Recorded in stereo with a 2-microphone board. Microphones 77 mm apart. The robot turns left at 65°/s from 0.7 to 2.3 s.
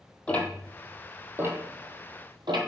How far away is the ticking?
About 1.7 m.